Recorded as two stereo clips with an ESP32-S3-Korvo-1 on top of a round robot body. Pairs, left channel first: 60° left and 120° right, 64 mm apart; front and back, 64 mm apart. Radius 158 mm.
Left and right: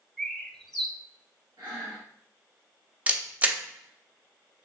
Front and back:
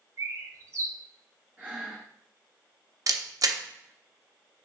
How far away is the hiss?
I don't hear a hiss.